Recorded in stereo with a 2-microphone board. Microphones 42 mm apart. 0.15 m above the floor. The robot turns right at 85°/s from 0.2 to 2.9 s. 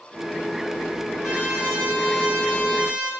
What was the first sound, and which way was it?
A trumpet, 170° right.